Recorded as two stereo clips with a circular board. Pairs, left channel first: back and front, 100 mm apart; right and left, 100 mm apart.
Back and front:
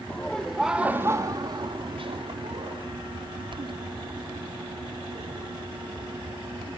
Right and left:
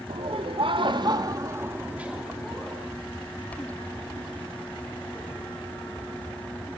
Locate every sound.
0.1 s laughter: 105° left, 2 m; by 2.8 s 5° right, 3 m